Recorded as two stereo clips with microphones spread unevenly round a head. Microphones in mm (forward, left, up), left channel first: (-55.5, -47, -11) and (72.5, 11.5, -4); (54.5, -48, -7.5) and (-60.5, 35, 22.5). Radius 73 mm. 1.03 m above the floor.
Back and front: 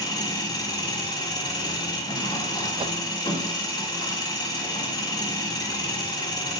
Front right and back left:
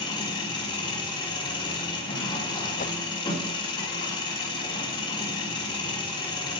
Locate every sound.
0.0 s an engine running: 95° right, 3 m
2.8 s a whoosh: 30° right, 0.7 m